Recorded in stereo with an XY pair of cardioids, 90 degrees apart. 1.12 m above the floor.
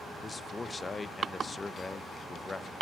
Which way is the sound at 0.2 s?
30° left.